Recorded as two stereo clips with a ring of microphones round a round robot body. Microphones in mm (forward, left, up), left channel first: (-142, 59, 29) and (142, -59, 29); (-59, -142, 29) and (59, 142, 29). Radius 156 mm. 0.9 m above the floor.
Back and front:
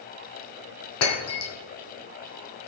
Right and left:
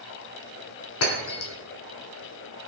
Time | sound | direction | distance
1.0 | breaking glass | 160° right | 2.5 m